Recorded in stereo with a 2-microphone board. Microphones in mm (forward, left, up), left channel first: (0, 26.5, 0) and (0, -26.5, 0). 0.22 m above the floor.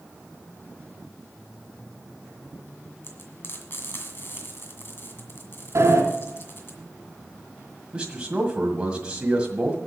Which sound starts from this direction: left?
Frying, at 3.0 s.